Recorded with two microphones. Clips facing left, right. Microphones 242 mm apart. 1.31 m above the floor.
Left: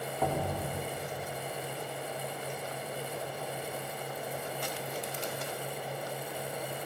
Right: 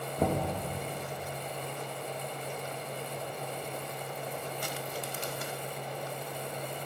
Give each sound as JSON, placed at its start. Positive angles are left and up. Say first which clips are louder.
{"t": 0.2, "sound": "knocking", "louder": "right 3 dB", "side_deg": -40, "distance_m": 1.3}